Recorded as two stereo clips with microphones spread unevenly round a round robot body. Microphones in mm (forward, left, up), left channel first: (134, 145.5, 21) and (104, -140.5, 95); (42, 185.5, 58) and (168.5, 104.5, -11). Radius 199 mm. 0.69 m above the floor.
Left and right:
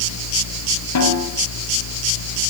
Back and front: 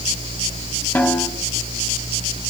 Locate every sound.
0.9 s a snare drum: 65° left, 5.5 m